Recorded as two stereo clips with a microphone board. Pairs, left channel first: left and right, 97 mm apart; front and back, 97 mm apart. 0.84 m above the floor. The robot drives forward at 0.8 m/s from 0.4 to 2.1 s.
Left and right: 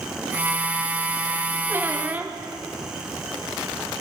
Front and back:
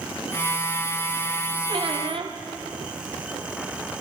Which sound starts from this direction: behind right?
A squeak, at 1.7 s.